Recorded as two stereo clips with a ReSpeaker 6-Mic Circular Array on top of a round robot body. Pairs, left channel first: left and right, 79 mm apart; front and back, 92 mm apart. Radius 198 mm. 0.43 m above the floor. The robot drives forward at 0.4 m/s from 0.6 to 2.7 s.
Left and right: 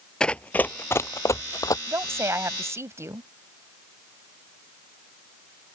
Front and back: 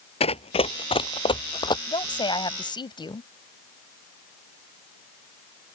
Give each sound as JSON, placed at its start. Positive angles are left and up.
{"t": 0.2, "sound": "running footsteps", "azimuth_deg": 10}
{"t": 1.9, "sound": "a woman speaking", "azimuth_deg": -35}